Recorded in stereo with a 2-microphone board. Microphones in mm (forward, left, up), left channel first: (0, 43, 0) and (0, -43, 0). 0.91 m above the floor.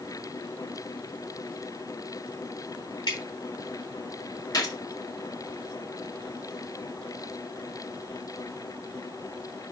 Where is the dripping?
60° left (ahead or behind), 3.5 m.